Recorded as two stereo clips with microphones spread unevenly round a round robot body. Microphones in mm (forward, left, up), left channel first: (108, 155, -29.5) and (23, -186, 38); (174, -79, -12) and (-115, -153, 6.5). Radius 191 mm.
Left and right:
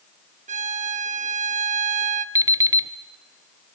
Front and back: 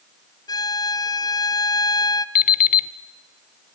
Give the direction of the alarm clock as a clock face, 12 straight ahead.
12 o'clock.